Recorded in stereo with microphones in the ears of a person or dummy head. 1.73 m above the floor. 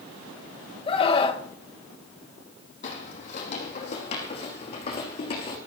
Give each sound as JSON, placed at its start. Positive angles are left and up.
{"t": 0.9, "sound": "a scream", "side_deg": 30, "distance_m": 2.0}
{"t": 2.8, "sound": "footsteps", "side_deg": 40, "distance_m": 4.5}